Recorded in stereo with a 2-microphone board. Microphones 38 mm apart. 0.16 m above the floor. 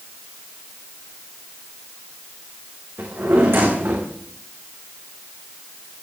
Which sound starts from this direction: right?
A drawer, at 3.0 s.